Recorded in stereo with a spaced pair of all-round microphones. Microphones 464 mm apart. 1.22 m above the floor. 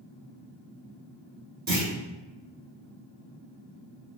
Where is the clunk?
55° right (ahead or behind), 1.8 m.